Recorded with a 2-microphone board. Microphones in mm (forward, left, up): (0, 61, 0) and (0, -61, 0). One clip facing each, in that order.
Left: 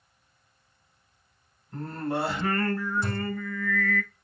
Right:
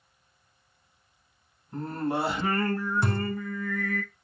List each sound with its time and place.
1.7 s singing: 15° right (ahead or behind), 0.8 m
3.0 s a thud: 65° right (ahead or behind), 0.9 m